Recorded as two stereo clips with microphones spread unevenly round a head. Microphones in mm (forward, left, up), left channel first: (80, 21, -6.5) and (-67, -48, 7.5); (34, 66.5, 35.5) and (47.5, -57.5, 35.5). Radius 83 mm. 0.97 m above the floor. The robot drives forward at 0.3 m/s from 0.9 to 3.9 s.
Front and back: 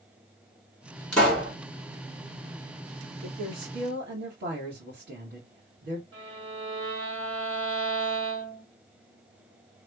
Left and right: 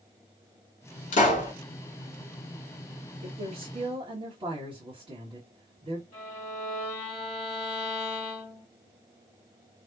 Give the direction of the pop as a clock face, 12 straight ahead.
8 o'clock.